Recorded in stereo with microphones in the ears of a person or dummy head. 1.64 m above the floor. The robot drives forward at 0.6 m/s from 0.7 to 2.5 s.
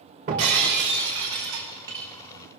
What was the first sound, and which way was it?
Breaking glass, 30° right (ahead or behind).